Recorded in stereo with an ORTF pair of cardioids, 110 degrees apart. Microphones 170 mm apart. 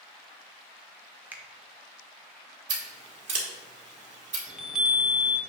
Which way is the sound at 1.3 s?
10° right.